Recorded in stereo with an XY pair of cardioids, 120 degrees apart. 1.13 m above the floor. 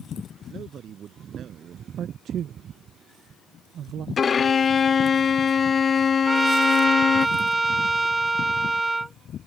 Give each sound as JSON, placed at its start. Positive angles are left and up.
{"t": 0.5, "sound": "a man speaking", "azimuth_deg": -50}
{"t": 2.0, "sound": "a man speaking", "azimuth_deg": -60}
{"t": 4.2, "sound": "a violin", "azimuth_deg": 30}
{"t": 6.3, "sound": "a trumpet", "azimuth_deg": -15}